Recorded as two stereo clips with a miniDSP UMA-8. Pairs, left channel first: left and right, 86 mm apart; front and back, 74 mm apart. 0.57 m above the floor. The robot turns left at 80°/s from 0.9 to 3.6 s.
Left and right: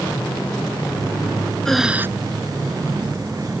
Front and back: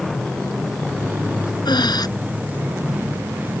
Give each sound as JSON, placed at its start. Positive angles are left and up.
{"t": 1.6, "sound": "breathing", "azimuth_deg": 5}